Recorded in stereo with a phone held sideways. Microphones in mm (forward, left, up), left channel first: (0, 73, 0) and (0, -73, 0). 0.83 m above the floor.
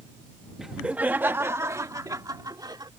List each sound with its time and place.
0.6 s laughter: centre (ahead or behind); by 2.9 s 30° right (ahead or behind)